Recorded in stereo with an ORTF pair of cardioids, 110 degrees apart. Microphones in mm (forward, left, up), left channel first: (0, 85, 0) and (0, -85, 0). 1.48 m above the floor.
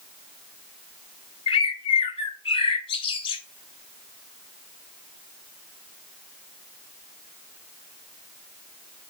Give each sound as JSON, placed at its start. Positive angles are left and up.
{"t": 1.5, "sound": "a bird", "azimuth_deg": 30, "distance_m": 0.8}